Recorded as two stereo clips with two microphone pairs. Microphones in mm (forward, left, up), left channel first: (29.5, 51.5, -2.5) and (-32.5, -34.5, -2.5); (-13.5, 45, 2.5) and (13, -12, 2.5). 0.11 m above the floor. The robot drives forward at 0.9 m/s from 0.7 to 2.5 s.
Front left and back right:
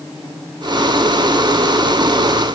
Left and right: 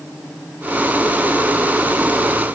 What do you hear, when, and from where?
Only background noise.